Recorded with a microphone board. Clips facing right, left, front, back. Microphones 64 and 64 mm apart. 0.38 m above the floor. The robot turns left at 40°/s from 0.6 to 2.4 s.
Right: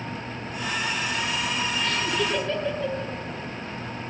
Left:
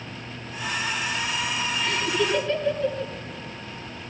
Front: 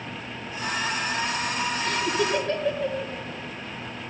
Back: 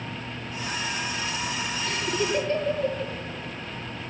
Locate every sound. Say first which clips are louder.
1.8 s laughter: left 3 dB, front 1 dB; 15° left, 7 m; by 3.1 s 5° right, 7 m